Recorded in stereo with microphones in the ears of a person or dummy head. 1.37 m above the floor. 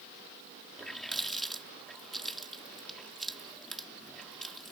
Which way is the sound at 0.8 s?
Centre (ahead or behind).